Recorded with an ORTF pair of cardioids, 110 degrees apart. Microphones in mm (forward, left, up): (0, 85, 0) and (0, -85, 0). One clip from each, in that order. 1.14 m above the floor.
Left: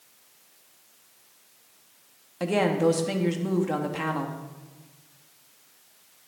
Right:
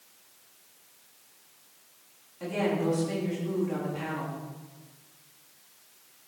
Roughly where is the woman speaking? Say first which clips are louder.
Left 6 dB; left.